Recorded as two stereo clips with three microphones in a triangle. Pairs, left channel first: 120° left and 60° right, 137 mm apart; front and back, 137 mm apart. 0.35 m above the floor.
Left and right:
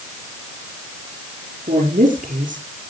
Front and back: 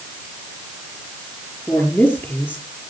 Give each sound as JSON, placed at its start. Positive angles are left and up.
{"t": 1.7, "sound": "a woman speaking", "azimuth_deg": -75, "distance_m": 6.5}